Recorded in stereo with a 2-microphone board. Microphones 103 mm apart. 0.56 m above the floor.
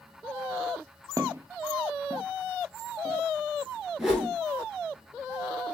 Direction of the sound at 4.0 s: Centre (ahead or behind).